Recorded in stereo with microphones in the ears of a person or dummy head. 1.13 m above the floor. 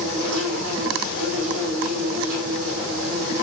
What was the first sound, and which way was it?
An insect, 65° right (ahead or behind).